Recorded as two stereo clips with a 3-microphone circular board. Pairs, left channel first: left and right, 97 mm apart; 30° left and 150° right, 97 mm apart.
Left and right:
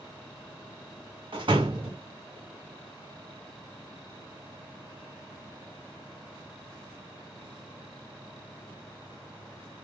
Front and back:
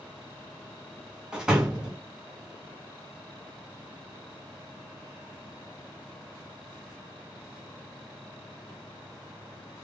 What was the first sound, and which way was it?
A door slam, 70° right.